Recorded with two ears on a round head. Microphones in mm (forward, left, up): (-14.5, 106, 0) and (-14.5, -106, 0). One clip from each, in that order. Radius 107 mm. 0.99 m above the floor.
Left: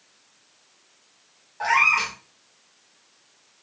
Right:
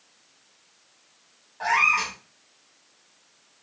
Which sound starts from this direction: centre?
A cat meowing, at 1.6 s.